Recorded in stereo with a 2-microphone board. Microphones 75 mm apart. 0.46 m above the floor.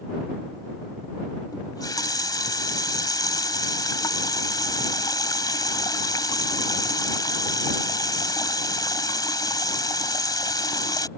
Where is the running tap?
60° left (ahead or behind).